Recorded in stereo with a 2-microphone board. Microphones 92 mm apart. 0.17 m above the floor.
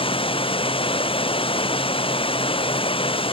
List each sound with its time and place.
0.0 s running water: 85° left